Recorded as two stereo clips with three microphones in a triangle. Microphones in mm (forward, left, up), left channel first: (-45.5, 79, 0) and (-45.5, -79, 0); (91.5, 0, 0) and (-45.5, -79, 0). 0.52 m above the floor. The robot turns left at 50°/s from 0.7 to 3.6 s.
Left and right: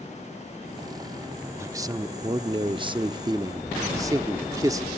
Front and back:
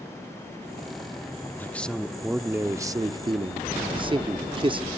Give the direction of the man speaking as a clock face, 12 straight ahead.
1 o'clock.